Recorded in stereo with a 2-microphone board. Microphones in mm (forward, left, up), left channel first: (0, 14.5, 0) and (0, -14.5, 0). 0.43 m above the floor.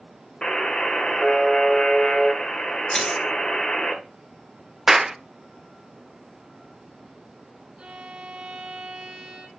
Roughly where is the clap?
Centre.